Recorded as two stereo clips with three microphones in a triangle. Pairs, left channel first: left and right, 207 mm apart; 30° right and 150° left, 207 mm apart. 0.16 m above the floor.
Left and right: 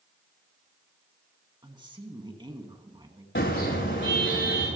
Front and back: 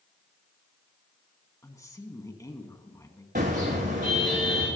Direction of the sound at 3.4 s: 110° left.